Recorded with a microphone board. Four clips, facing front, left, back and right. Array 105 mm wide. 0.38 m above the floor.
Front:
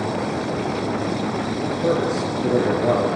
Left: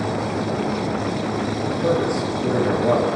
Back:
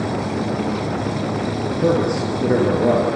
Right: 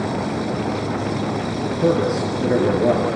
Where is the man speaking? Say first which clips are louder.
Right 3 dB, back 3 dB; 150° right, 8 m; by 3.1 s 140° right, 7.5 m.